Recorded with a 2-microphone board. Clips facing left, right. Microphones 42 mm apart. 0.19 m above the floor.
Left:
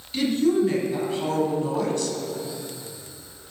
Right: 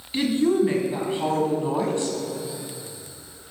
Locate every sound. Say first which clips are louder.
0.1 s a woman speaking: even; 25° right (ahead or behind), 1.1 m